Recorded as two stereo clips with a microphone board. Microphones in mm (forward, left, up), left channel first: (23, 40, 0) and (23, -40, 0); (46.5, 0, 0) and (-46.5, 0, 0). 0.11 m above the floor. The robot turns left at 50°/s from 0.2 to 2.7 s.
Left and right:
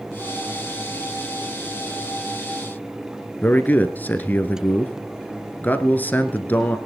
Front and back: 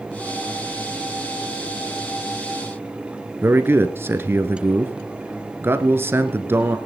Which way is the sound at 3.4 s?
140° left.